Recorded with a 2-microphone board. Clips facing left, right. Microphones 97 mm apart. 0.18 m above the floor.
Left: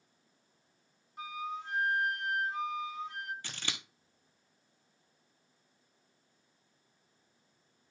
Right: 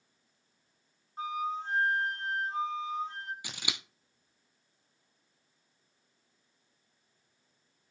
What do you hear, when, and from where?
1.2 s a flute: 30° right (ahead or behind), 1.6 m
3.4 s scissors: 10° right (ahead or behind), 1.0 m